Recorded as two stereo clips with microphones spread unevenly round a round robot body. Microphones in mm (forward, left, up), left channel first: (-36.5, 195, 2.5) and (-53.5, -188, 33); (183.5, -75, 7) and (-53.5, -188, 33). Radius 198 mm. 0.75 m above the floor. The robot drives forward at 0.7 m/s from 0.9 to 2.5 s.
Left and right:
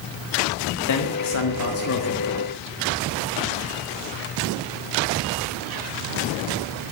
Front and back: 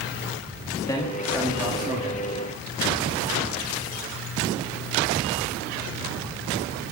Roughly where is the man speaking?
Left.